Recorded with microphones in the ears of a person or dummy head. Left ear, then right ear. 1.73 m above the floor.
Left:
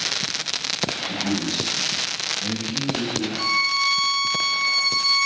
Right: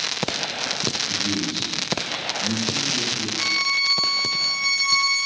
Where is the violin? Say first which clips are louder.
Left 1 dB; 80° left, 4.5 m.